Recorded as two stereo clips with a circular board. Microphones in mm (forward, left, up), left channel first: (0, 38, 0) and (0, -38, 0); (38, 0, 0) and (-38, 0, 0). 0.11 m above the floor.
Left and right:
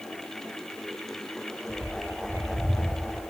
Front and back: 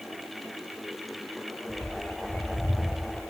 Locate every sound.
1.7 s a bird: 65° right, 1.0 m